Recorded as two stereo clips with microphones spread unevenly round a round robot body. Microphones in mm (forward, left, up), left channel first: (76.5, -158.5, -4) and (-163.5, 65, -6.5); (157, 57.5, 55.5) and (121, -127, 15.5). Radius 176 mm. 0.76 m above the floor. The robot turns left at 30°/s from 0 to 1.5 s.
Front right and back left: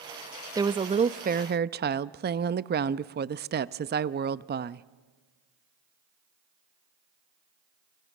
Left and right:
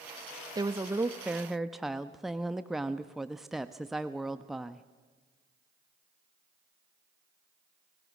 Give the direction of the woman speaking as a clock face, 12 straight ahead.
5 o'clock.